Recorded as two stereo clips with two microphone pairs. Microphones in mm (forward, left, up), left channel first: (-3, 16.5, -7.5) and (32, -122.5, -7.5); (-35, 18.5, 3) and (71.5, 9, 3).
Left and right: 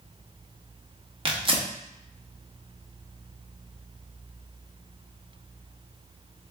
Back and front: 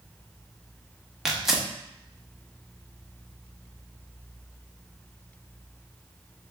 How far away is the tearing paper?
About 0.9 m.